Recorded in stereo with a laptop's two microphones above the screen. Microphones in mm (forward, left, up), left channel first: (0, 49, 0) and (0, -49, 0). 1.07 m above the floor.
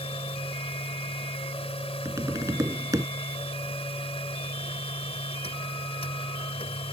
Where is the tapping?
35° right (ahead or behind).